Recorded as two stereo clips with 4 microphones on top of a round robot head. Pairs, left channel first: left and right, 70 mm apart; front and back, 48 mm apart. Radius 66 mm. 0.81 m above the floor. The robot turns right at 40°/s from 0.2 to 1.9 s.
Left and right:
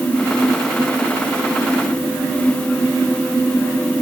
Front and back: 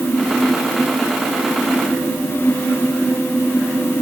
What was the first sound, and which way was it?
Only background noise.